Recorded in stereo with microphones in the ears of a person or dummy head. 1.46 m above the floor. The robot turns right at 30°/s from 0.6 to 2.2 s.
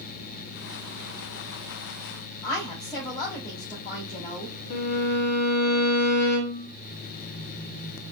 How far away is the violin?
About 0.7 m.